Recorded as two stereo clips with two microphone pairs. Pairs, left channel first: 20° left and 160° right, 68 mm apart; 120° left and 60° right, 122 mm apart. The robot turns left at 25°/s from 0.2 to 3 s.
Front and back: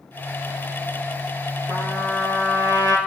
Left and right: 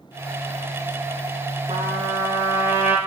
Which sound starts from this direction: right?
A trumpet, at 1.7 s.